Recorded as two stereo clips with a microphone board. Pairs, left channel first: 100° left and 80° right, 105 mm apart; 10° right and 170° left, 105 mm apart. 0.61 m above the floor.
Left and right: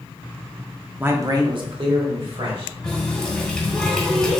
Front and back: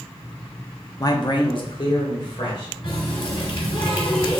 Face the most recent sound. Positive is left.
turn(degrees=20)